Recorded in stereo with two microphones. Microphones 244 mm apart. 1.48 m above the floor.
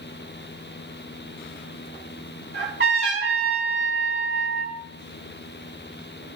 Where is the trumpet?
50° right (ahead or behind), 4.5 m.